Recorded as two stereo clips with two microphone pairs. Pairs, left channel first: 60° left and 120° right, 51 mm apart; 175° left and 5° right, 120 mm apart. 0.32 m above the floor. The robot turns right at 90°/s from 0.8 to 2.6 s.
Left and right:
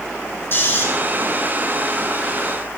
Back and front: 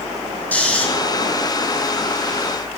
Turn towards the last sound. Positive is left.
turn(degrees=-95)